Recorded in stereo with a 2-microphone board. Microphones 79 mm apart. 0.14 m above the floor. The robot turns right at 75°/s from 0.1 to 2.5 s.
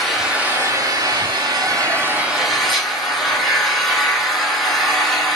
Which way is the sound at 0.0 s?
175° left.